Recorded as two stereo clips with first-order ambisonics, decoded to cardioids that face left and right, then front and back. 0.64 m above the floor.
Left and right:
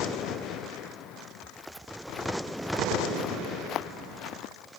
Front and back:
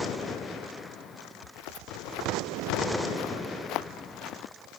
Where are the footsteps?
5° right; by 4.5 s 50° left.